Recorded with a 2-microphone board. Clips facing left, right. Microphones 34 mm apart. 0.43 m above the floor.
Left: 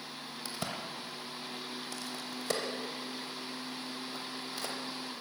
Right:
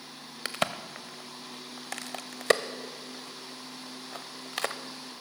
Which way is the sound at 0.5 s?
70° right (ahead or behind).